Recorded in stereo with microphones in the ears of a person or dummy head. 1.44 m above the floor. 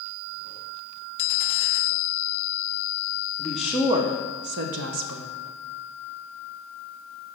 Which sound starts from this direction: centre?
A woman speaking, at 3.4 s.